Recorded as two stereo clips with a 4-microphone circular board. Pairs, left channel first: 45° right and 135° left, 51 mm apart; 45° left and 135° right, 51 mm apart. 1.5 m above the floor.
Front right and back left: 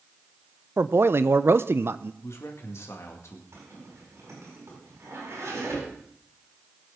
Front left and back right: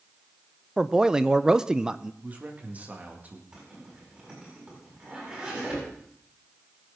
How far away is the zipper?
About 7.5 m.